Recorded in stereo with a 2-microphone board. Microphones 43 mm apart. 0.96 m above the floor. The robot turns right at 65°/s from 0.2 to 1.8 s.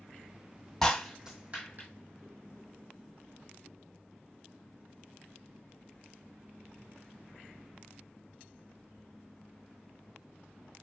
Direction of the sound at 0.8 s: 10° left (ahead or behind).